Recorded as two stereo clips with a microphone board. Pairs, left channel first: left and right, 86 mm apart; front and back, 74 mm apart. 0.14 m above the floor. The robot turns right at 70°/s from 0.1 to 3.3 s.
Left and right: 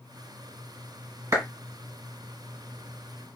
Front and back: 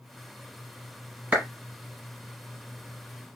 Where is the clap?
120° right, 1.7 m; by 1.4 s 110° right, 1.7 m.